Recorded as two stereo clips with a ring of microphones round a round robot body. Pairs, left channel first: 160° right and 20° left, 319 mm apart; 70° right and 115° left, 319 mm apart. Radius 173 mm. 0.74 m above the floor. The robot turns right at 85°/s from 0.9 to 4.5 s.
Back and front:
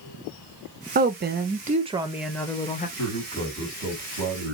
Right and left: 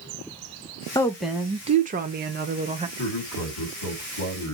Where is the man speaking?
120° right, 2.5 m; by 4.6 s 10° left, 2.5 m.